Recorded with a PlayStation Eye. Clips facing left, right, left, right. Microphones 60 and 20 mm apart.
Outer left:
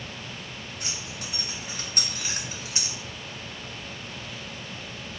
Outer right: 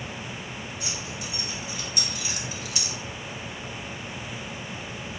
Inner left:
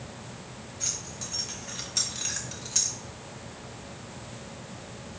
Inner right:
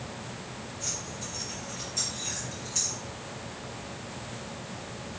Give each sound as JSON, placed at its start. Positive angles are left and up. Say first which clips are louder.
{"t": 0.8, "sound": "keys jangling", "louder": "outer right 2 dB, inner left 2 dB", "side_deg": 45, "distance_m": 1.6}